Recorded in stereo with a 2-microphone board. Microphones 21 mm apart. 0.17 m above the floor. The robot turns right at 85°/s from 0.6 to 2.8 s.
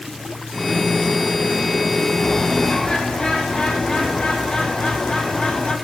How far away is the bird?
About 1.9 m.